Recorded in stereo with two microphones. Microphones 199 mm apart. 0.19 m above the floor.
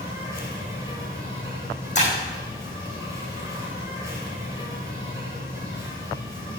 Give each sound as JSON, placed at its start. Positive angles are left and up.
{"t": 0.0, "sound": "an insect", "side_deg": -15, "distance_m": 4.0}
{"t": 1.9, "sound": "breaking glass", "side_deg": 35, "distance_m": 4.5}